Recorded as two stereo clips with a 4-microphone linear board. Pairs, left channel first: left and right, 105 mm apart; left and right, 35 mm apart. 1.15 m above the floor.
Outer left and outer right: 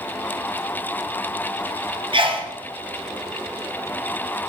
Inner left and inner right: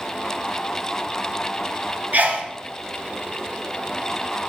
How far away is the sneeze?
About 0.7 m.